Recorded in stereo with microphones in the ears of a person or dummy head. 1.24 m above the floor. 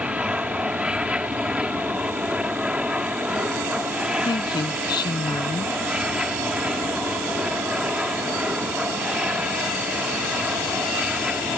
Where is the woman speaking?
25° left (ahead or behind).